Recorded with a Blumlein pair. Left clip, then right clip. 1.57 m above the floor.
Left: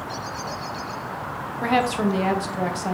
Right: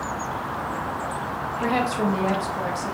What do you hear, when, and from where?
1.6 s a woman speaking: 15° left, 0.6 m